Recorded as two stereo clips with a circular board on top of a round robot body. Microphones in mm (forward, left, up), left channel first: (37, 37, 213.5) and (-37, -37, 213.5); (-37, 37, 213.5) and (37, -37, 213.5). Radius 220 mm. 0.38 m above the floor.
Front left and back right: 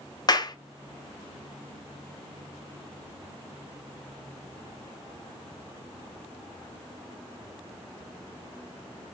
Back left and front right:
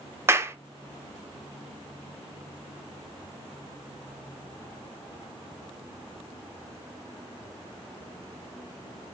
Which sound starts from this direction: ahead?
A clap, at 0.3 s.